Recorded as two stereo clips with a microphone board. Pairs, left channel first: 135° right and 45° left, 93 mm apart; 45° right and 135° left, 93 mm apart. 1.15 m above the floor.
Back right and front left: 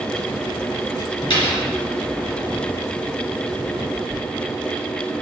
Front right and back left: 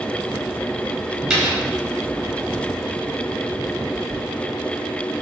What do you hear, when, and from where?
1.3 s a dropped coin: 140° right, 1.9 m